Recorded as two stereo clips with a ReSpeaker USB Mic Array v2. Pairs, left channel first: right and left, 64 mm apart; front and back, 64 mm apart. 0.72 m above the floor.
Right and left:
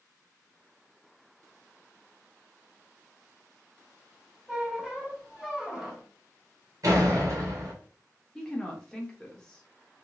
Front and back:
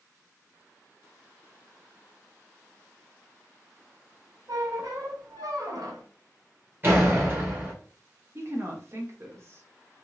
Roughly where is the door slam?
Behind left.